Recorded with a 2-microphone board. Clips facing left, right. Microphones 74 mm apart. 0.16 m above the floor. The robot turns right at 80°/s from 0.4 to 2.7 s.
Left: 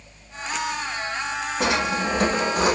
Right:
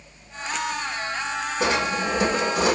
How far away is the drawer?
About 3 m.